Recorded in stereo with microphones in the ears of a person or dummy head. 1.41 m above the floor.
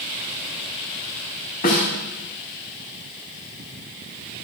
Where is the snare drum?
40° left (ahead or behind), 1.9 m.